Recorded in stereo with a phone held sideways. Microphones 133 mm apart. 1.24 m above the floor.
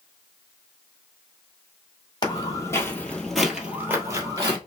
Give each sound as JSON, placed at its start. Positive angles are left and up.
{"t": 2.2, "sound": "footsteps", "side_deg": 35, "distance_m": 1.4}